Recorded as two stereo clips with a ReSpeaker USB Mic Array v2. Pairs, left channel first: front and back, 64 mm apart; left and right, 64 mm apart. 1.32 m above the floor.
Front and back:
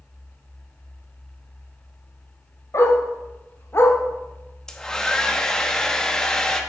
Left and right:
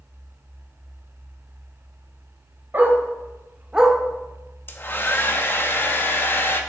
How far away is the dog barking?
About 2.5 m.